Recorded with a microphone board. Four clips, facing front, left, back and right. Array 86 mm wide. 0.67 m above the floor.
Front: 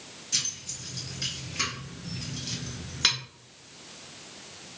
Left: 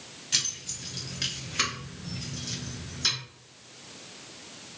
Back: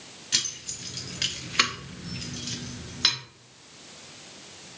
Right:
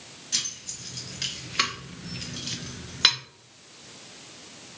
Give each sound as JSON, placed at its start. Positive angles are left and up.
{"t": 0.3, "sound": "keys jangling", "azimuth_deg": 150, "distance_m": 1.0}